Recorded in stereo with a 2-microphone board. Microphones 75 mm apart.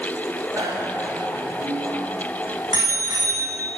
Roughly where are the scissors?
I don't hear scissors.